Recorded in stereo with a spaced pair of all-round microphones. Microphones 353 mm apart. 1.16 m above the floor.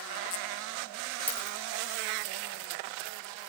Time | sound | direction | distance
1.3 | a dropped coin | 5° left (ahead or behind) | 4.5 m